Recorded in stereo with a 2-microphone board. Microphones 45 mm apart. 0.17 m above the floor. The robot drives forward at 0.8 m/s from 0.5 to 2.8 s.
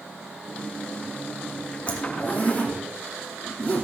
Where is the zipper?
30° left (ahead or behind), 3.5 m; by 3.8 s 35° left (ahead or behind), 3 m.